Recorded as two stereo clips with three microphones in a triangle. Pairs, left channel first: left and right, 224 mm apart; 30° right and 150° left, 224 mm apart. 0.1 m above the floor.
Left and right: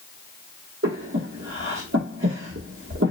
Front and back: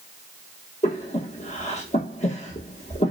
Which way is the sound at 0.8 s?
90° right.